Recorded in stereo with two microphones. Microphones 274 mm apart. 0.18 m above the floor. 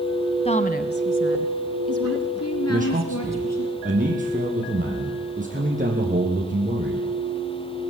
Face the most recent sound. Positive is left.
turn(degrees=-30)  # may be behind; listen again after turning